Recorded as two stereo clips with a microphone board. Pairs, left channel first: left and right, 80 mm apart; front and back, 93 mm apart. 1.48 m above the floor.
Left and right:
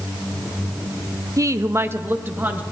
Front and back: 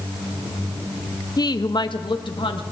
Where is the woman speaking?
45° right, 0.6 m; by 2.6 s 25° right, 1.3 m.